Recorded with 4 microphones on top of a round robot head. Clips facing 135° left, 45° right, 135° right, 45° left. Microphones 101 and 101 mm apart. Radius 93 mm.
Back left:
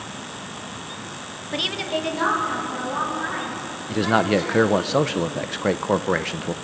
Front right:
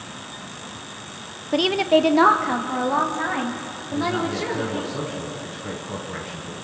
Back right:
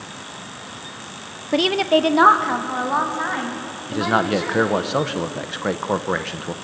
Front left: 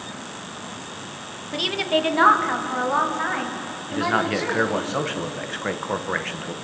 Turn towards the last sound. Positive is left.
turn(degrees=155)